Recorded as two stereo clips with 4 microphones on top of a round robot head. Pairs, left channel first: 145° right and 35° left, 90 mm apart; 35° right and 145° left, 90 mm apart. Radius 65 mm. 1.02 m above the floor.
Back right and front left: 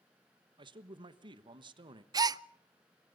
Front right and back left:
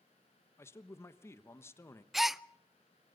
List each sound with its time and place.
0.6 s a man speaking: 25° left, 1.3 m
2.1 s a gasp: 60° left, 0.5 m